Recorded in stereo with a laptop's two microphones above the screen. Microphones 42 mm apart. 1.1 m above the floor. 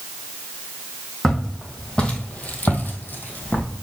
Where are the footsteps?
10° left (ahead or behind), 2 m; by 3.7 s 45° left (ahead or behind), 2 m.